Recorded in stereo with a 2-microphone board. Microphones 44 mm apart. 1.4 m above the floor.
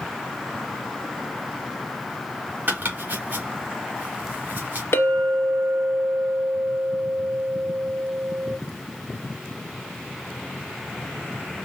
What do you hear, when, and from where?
2.7 s chopping: 50° right (ahead or behind), 1.8 m
4.9 s a clink: 70° left (ahead or behind), 1.0 m